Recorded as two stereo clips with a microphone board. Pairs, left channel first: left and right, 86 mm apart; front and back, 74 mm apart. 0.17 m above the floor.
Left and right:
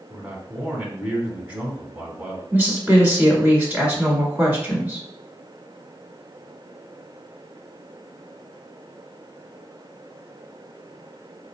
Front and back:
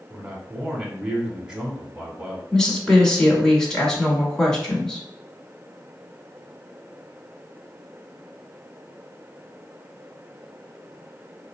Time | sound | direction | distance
0.1 | a man speaking | 125° right | 1.1 m
2.5 | a woman speaking | 70° right | 1.3 m